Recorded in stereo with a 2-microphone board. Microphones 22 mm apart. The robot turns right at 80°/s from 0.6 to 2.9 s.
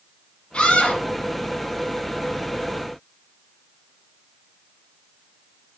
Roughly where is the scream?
Ahead left.